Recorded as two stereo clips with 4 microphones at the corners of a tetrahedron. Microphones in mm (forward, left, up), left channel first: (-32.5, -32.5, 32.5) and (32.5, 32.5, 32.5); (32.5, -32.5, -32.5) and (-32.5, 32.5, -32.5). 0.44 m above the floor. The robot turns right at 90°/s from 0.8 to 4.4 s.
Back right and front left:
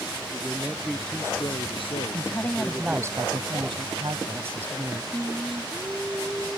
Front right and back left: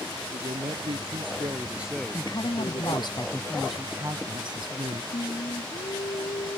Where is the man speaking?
120° left; by 3.1 s 30° right.